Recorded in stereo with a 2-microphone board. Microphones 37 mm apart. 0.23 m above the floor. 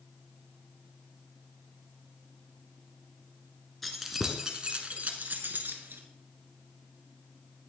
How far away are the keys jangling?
About 1.8 m.